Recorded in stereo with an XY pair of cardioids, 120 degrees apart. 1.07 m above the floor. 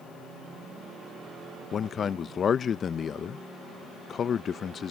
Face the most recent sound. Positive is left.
turn(degrees=40)